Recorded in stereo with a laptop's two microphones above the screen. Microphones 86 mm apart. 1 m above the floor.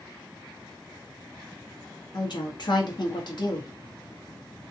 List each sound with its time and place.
2.1 s a woman speaking: 55° left (ahead or behind), 0.8 m